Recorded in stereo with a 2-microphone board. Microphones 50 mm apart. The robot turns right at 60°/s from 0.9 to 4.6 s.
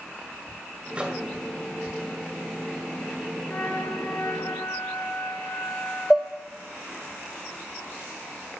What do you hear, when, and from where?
0.9 s a microwave: 25° right (ahead or behind), 1.9 m; by 1.3 s 5° right (ahead or behind), 1.9 m
3.5 s a flute: 45° left, 2.5 m; by 6.5 s 115° left, 2.5 m
6.1 s dishes clattering: 10° right (ahead or behind), 0.5 m